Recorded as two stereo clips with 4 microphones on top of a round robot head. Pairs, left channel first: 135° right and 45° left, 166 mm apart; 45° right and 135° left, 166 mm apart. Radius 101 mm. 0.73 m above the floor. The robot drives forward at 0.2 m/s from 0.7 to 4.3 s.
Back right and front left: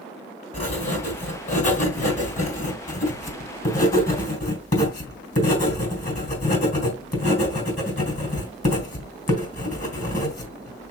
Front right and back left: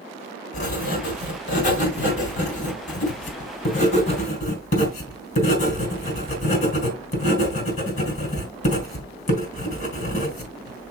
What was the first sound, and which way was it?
Writing, 85° right.